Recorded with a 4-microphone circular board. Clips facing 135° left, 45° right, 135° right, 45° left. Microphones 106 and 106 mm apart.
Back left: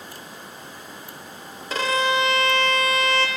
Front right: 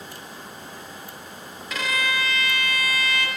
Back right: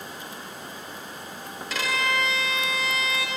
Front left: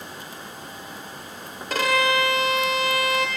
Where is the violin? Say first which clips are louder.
Back left 6 dB, front left 6 dB; 80° left, 0.9 m.